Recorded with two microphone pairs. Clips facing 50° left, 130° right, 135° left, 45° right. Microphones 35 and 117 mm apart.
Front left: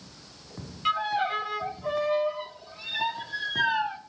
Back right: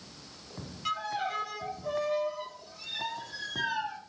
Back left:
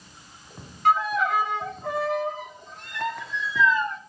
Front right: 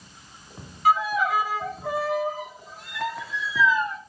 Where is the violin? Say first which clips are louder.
Front left 6 dB, even; 45° left, 0.6 m.